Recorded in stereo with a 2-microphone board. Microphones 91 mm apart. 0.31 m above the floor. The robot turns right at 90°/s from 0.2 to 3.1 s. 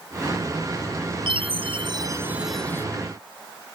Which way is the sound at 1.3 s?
115° right.